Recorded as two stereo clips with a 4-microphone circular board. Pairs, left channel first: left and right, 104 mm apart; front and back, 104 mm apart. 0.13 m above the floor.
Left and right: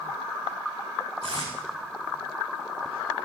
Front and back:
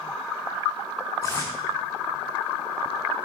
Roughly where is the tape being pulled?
Ahead right.